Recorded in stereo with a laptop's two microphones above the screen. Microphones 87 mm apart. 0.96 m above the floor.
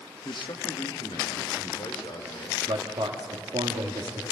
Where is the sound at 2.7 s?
75° right (ahead or behind), 1.5 m.